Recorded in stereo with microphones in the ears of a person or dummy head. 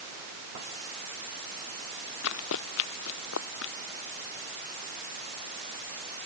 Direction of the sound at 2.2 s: 80° left.